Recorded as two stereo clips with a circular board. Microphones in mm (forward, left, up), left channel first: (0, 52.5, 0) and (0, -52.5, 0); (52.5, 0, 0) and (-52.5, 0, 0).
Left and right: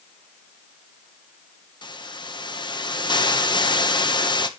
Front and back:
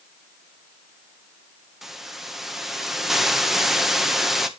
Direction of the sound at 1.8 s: 95° left.